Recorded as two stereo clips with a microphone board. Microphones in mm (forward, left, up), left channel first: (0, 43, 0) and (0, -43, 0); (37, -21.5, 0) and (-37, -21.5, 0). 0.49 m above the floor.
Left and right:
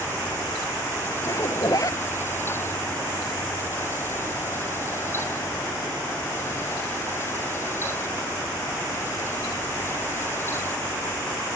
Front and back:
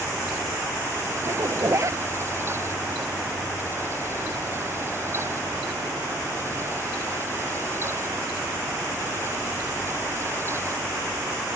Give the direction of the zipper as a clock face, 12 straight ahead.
8 o'clock.